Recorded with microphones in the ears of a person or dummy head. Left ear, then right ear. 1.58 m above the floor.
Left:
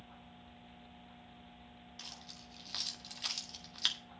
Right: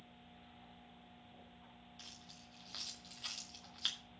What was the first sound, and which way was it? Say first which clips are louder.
Keys jangling: left 6 dB; 15° left (ahead or behind).